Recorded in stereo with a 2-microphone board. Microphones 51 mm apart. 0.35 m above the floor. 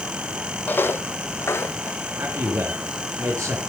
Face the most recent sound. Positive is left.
turn(degrees=-75)  # may be behind; listen again after turning